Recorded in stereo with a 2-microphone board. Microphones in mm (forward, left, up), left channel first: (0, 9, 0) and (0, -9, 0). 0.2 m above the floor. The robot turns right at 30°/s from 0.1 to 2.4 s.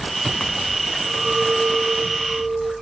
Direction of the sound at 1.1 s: 90° right.